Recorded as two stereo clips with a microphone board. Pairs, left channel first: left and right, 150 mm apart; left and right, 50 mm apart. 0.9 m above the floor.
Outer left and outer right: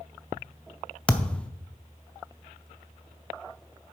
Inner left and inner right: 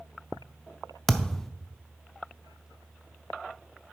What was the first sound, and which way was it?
A thud, 10° left (ahead or behind).